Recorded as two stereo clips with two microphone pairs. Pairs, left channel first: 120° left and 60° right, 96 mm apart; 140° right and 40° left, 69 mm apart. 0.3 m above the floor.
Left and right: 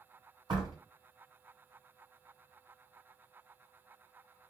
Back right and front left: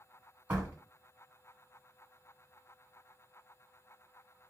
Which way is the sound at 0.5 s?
30° right.